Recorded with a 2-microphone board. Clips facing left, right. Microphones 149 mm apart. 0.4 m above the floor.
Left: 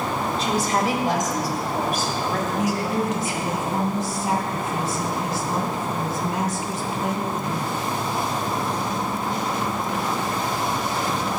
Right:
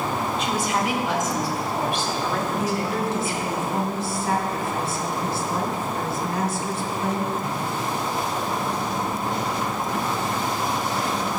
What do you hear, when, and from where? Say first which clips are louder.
0.4 s a woman speaking: left 4 dB; 35° left (ahead or behind), 1.6 m; by 3.6 s 45° left (ahead or behind), 4 m
2.6 s a woman speaking: left 1 dB; 25° left (ahead or behind), 2.5 m